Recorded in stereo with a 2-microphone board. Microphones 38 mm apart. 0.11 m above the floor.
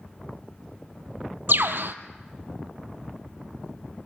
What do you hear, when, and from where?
1.5 s a bird: 65° right (ahead or behind), 1.1 m